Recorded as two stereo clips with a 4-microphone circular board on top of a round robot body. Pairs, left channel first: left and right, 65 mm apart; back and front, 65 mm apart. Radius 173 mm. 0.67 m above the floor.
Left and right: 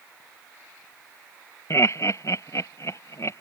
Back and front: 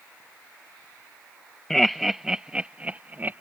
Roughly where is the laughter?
Left.